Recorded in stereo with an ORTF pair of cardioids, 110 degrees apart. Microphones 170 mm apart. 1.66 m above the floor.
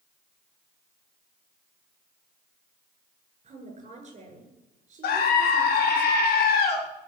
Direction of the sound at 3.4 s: 40° right.